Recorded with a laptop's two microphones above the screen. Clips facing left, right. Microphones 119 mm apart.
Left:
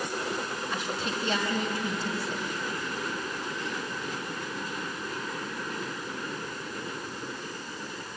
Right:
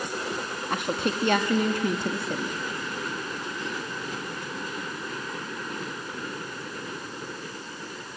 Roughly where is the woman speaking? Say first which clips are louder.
Right 8 dB; right.